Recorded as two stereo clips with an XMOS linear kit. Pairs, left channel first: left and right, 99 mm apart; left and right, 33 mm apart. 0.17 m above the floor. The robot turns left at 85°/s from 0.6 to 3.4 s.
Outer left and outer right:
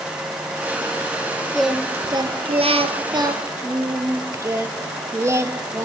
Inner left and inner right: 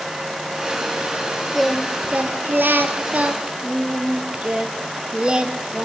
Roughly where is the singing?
Ahead.